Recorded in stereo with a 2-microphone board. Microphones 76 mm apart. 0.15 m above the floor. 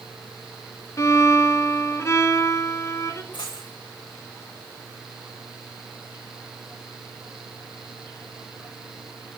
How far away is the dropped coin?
About 6 m.